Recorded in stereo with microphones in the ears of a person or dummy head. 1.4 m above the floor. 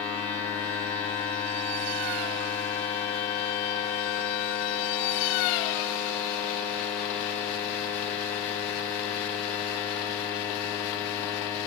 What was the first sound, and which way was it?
A machine running, 10° left (ahead or behind).